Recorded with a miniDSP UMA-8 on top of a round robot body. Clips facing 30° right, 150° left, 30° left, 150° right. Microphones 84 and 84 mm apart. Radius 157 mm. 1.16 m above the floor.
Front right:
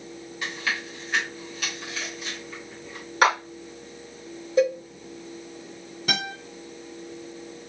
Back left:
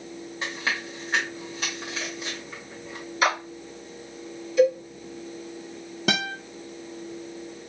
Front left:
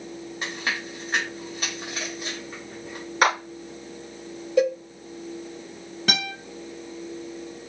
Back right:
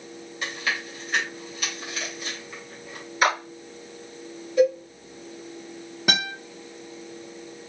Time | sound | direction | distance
0.4 | chewing | 90° left | 0.7 m
3.2 | a clap | 5° right | 2.5 m
4.6 | a cowbell | 25° left | 1.4 m
6.1 | a guitar | 130° left | 0.6 m